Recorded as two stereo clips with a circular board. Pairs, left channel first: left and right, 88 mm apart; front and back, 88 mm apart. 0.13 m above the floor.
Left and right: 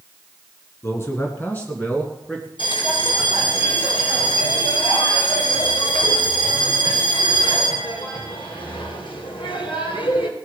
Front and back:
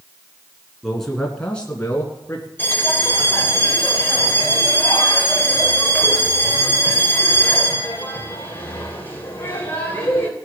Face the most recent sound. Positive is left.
turn(degrees=70)